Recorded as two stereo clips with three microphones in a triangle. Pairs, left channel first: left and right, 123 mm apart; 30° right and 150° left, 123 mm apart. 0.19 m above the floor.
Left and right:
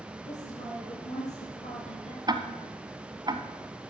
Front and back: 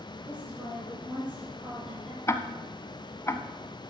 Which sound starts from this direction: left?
A woman speaking, at 0.2 s.